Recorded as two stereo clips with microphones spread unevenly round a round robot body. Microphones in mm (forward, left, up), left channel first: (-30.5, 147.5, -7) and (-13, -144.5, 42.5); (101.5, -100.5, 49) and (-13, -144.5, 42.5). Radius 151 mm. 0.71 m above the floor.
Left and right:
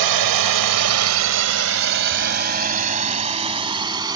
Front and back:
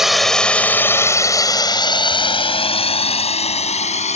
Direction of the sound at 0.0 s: 70° right.